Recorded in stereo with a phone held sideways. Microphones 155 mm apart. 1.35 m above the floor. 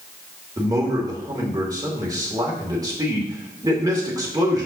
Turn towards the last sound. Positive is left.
turn(degrees=-25)  # may be behind; listen again after turning